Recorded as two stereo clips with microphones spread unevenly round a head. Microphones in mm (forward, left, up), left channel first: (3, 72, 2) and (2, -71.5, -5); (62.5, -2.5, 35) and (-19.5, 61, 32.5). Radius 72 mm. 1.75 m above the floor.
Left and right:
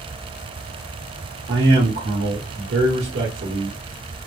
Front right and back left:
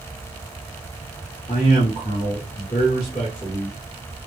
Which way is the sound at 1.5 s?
95° right.